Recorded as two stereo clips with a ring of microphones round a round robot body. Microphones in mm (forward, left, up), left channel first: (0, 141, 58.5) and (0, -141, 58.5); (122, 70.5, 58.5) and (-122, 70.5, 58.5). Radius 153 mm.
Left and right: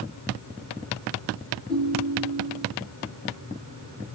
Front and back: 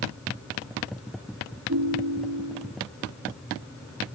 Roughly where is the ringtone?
Behind left.